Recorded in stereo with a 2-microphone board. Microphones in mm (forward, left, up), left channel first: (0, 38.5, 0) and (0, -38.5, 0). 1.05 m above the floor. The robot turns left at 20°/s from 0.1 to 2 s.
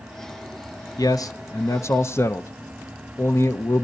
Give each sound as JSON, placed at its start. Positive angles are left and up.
{"t": 1.0, "sound": "a man speaking", "side_deg": 55, "distance_m": 0.5}